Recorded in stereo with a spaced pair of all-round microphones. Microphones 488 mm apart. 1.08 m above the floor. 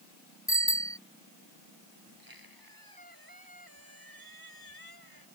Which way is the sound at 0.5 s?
5° left (ahead or behind).